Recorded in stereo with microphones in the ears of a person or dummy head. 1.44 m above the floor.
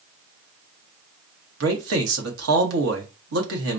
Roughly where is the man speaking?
Right.